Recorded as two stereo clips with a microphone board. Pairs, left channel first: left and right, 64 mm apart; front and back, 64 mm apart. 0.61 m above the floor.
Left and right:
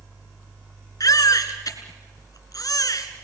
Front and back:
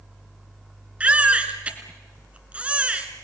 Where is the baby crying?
110° left, 2 m.